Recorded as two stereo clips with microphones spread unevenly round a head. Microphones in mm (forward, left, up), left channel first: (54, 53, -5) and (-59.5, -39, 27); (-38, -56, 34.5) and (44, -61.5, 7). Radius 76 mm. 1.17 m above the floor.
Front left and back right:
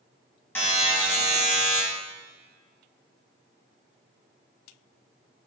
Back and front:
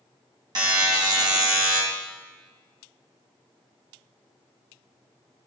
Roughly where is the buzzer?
Ahead right.